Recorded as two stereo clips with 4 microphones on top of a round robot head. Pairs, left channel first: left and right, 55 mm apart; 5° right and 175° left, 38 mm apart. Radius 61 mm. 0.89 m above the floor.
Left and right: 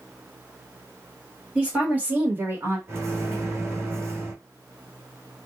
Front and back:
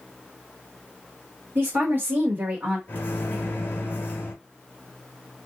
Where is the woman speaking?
160° right, 1.4 m; by 2.8 s 120° right, 1.1 m.